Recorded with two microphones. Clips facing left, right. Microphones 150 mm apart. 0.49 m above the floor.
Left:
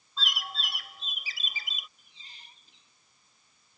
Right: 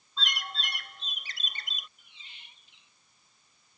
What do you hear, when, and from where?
0.2 s a bird: 5° left (ahead or behind)
2.0 s a squeak: 35° left (ahead or behind)